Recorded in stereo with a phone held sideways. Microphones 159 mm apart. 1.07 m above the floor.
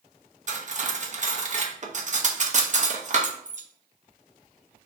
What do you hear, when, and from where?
0.5 s cutlery clinking: 50° right (ahead or behind), 0.5 m